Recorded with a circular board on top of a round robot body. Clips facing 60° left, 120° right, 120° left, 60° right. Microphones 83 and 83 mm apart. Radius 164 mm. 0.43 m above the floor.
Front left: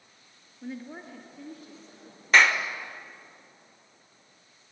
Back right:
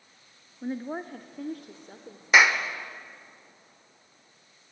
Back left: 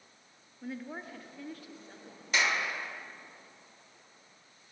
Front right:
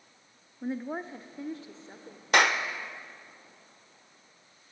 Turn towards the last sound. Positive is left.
turn(degrees=-40)